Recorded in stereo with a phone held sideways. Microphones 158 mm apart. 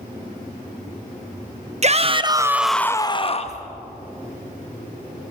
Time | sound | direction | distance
1.8 | a shout | 45° right (ahead or behind) | 1.1 m